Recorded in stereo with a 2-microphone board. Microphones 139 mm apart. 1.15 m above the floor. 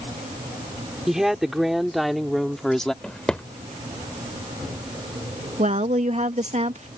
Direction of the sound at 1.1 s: 5° right (ahead or behind).